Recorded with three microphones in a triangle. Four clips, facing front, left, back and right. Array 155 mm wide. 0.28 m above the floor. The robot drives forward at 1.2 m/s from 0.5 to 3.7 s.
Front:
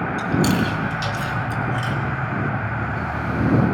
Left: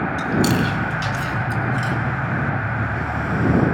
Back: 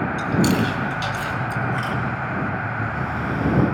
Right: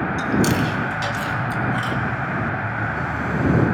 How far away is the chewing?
About 2 m.